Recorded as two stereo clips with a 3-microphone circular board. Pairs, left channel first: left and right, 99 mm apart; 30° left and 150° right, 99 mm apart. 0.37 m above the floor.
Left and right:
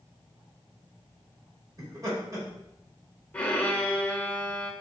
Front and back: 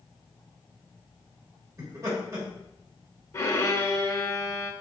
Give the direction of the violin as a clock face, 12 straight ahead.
11 o'clock.